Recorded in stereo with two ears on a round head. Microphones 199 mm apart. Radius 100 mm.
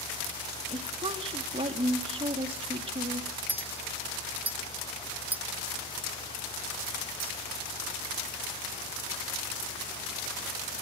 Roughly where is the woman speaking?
Right.